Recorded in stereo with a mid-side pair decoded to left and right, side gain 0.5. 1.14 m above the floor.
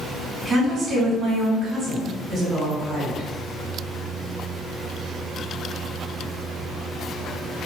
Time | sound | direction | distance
0.5 | a woman speaking | 40° right | 1.9 m